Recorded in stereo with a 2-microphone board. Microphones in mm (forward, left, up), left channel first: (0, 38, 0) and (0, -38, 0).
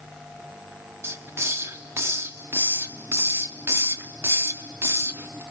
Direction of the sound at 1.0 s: 30° right (ahead or behind).